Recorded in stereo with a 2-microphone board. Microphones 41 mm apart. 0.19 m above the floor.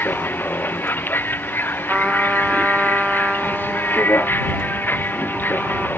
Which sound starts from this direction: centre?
A trumpet, at 1.9 s.